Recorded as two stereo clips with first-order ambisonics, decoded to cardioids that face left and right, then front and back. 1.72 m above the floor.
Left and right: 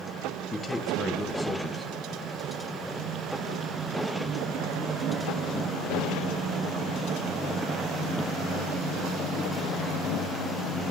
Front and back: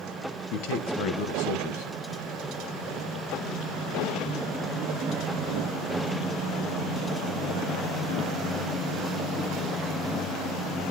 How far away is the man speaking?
About 1.7 m.